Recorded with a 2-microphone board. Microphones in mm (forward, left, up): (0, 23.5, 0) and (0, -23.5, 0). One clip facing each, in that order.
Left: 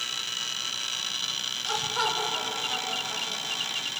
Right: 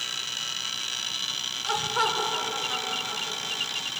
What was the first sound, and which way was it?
Laughter, 25° right (ahead or behind).